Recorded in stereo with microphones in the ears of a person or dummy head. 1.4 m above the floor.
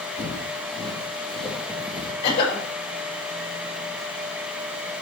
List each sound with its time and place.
0.2 s footsteps: 5° left (ahead or behind), 3.5 m; by 2.1 s 5° right (ahead or behind), 2.5 m
2.2 s a cough: 30° left (ahead or behind), 6 m